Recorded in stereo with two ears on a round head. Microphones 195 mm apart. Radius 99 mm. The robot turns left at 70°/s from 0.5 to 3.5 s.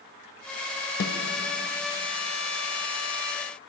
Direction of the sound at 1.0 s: 65° left (ahead or behind).